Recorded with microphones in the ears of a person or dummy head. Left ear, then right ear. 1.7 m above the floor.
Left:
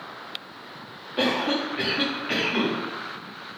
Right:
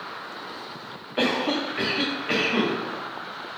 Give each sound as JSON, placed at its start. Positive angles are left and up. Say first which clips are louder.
{"t": 1.2, "sound": "a cough", "louder": "even", "side_deg": -20, "distance_m": 0.6}